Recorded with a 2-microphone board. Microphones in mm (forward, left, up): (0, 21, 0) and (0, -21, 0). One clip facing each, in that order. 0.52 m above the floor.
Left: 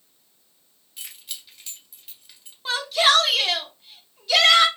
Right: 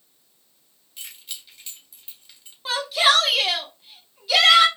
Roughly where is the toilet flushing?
I don't hear a toilet flushing.